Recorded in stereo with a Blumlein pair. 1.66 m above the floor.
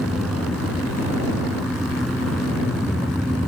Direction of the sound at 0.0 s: Straight ahead.